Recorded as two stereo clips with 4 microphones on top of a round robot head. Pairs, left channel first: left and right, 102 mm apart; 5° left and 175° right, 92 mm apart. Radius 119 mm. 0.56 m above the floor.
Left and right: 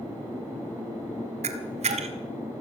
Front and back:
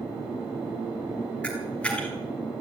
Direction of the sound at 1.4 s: 75° right.